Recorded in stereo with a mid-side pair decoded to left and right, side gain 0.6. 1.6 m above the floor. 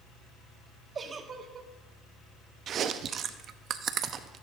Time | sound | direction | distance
0.9 | a giggle | 35° right | 1.2 m
2.7 | chewing | 50° right | 0.7 m